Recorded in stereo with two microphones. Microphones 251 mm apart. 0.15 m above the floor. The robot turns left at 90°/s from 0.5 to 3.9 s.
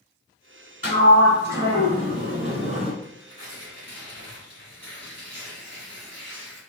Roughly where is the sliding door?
Ahead left.